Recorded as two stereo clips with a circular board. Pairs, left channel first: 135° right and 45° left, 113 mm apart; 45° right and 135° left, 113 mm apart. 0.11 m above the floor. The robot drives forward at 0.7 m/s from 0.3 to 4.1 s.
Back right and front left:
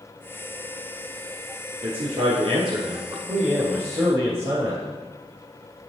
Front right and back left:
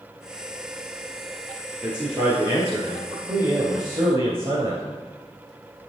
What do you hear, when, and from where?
1.8 s a man speaking: 55° left, 2.5 m; by 4.8 s 105° left, 2 m